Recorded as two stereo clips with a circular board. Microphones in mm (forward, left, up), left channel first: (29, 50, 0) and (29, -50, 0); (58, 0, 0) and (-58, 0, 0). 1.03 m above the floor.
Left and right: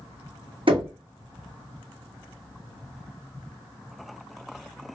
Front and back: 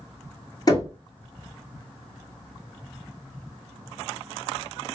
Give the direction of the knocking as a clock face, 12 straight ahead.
2 o'clock.